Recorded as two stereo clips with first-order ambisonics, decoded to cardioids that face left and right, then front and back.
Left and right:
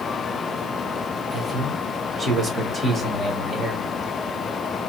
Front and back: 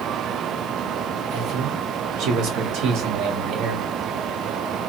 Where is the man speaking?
170° right, 1.2 m.